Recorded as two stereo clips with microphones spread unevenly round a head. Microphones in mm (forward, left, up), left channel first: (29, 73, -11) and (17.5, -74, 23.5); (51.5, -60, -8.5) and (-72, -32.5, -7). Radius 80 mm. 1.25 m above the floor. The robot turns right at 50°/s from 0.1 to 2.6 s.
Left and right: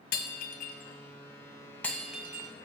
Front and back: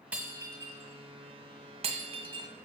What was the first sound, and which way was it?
Breaking glass, 90° left.